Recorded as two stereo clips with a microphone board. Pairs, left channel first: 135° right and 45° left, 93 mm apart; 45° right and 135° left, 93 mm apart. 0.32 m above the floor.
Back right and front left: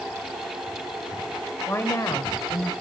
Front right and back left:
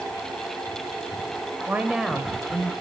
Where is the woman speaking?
Straight behind, 1.0 m; by 2.7 s 105° right, 1.4 m.